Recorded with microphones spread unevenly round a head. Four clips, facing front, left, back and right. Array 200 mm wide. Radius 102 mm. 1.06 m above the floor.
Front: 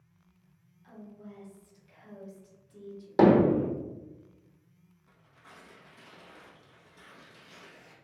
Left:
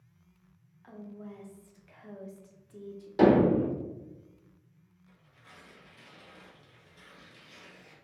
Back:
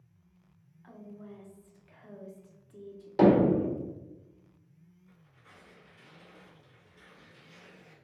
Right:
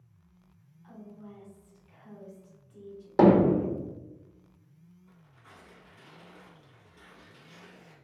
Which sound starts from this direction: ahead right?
Hammering, at 3.2 s.